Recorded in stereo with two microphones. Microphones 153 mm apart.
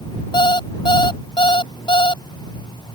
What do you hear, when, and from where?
0.3 s an alarm clock: 30° left (ahead or behind)